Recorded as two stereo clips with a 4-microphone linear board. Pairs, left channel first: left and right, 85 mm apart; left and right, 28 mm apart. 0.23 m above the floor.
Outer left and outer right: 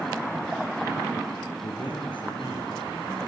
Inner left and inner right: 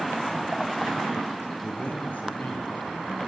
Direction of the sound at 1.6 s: 65° left (ahead or behind).